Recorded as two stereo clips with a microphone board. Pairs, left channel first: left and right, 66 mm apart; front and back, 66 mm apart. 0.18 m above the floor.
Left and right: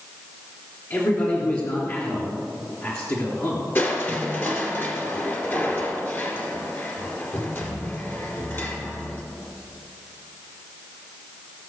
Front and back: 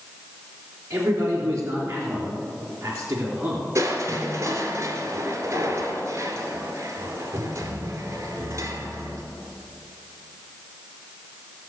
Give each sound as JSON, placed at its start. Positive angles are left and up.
{"t": 0.9, "sound": "a man speaking", "azimuth_deg": 130, "distance_m": 3.0}
{"t": 3.8, "sound": "crushing", "azimuth_deg": 145, "distance_m": 2.0}